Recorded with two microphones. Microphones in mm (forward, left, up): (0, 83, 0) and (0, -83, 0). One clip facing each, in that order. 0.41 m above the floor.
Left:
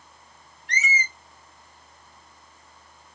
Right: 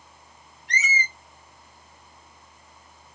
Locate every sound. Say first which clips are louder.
0.7 s a squeak: even; 70° right (ahead or behind), 0.8 m